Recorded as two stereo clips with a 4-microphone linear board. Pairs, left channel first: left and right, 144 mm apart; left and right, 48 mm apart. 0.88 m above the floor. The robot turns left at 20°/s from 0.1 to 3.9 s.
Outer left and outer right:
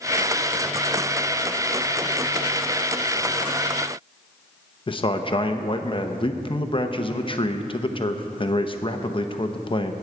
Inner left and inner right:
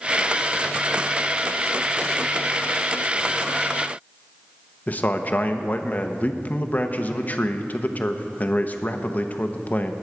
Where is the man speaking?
35° left (ahead or behind), 0.8 m.